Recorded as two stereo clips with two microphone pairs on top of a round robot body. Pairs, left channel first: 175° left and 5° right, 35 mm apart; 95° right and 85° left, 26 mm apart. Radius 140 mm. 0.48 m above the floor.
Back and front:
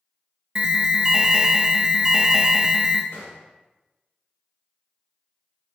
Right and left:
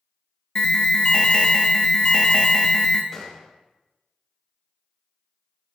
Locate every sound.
0.6 s an alarm: 65° right, 0.5 m
3.1 s a gunshot: 170° right, 0.6 m